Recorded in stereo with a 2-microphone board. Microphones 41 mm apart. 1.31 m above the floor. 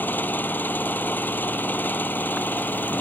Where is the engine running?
50° left (ahead or behind).